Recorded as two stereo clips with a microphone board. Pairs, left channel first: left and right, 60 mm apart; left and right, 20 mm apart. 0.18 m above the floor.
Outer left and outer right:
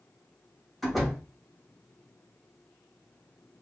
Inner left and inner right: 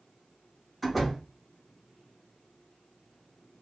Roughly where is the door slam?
Centre.